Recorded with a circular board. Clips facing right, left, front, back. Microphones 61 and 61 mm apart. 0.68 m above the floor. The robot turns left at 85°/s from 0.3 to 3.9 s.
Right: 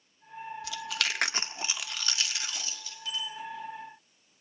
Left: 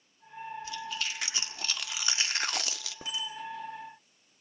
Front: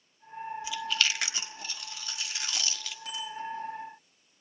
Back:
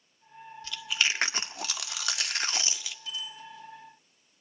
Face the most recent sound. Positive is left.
turn(degrees=-50)